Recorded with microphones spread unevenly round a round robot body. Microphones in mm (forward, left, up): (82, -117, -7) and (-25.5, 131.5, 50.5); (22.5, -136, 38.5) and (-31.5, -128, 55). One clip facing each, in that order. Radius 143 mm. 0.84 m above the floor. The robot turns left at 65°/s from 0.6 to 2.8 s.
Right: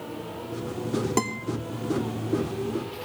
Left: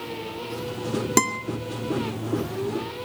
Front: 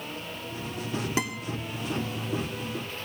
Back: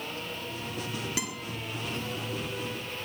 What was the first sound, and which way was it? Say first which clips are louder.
A guitar: left 3 dB, front 5 dB; 55° left.